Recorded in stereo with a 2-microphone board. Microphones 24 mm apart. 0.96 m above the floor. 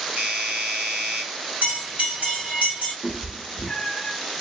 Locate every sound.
0.2 s a doorbell: 50° right (ahead or behind), 2 m
1.6 s a bell: 80° right, 3 m
3.0 s a cat meowing: 15° left (ahead or behind), 1.1 m